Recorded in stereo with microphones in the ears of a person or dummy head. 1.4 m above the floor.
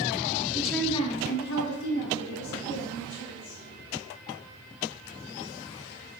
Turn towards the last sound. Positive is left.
turn(degrees=85)